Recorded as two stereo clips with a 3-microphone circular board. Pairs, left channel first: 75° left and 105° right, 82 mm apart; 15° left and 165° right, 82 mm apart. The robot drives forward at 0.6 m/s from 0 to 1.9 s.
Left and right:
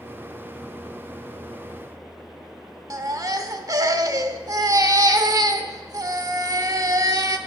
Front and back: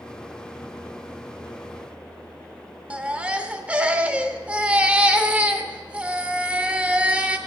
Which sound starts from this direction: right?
A baby crying, at 2.9 s.